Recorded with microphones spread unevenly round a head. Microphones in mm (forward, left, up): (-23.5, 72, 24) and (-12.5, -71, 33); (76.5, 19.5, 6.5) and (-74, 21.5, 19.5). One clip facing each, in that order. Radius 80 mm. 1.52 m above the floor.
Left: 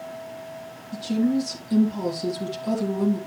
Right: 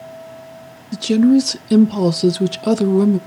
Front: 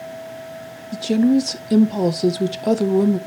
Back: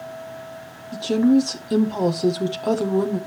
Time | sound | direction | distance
0.9 | a woman speaking | 75° right | 0.5 m